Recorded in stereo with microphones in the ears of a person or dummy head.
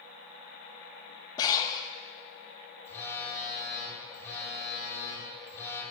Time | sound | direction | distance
1.4 | breathing | 25° left (ahead or behind) | 0.7 m
2.9 | a phone buzzing | 15° left (ahead or behind) | 3 m